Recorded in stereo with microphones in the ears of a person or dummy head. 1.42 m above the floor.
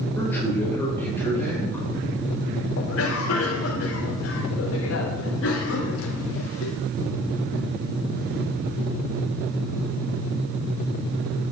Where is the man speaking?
10° left (ahead or behind), 5.5 m.